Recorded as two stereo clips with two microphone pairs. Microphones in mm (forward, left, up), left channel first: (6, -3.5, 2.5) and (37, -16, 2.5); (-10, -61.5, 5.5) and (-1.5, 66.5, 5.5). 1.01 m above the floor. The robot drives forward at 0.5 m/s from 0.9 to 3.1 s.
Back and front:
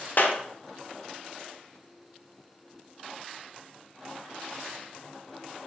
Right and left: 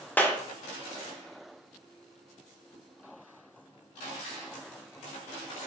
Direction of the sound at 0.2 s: 170° right.